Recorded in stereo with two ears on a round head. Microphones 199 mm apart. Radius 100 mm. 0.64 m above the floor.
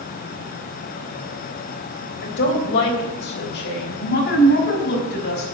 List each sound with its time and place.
2.2 s a woman speaking: 55° left (ahead or behind), 3.5 m; by 5.5 s 50° left (ahead or behind), 5.5 m